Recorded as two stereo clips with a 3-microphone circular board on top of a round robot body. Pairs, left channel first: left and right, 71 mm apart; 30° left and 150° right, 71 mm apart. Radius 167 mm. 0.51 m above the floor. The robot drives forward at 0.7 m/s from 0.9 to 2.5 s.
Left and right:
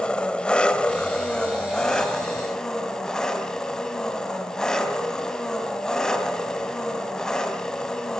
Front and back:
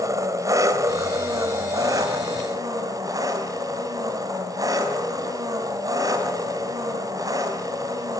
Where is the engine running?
165° left, 2.5 m; by 8.2 s 170° left, 3.5 m.